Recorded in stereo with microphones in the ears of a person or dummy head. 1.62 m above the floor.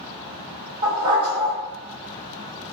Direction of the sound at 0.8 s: 20° right (ahead or behind).